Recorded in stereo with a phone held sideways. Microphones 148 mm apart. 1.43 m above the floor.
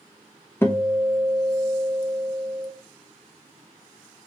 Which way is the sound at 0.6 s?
15° left (ahead or behind).